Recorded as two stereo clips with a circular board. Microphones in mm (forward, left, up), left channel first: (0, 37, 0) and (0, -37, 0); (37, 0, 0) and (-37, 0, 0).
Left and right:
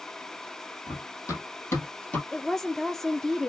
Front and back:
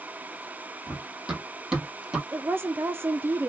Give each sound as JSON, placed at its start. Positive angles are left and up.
{"t": 0.9, "sound": "running footsteps", "azimuth_deg": 100, "distance_m": 1.8}
{"t": 2.3, "sound": "a woman speaking", "azimuth_deg": 170, "distance_m": 0.5}